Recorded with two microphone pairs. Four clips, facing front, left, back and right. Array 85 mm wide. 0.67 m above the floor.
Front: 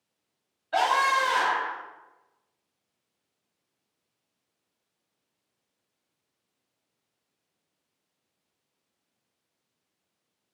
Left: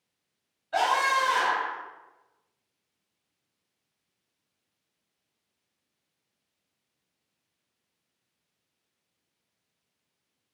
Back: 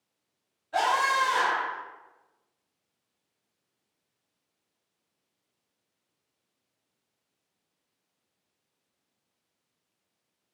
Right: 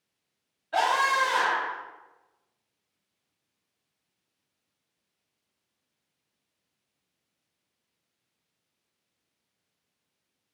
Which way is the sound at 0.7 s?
15° right.